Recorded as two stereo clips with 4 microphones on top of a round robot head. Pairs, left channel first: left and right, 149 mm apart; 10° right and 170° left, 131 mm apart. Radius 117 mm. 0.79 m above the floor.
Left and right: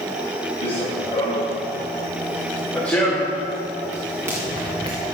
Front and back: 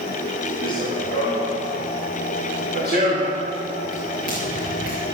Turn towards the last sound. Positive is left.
turn(degrees=-155)